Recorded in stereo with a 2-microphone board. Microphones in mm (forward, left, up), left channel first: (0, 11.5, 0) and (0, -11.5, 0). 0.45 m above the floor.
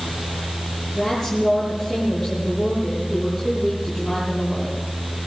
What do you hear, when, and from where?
0.9 s a woman speaking: centre (ahead or behind), 9 m